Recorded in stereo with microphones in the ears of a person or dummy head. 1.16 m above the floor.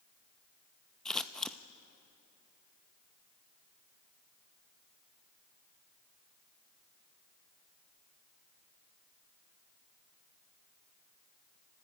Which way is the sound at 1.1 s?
10° left (ahead or behind).